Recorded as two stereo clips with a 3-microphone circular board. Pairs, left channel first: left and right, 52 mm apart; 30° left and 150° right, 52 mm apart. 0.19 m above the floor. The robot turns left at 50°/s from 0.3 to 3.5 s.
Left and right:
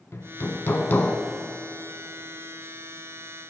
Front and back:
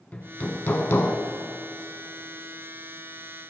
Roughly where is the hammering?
Left.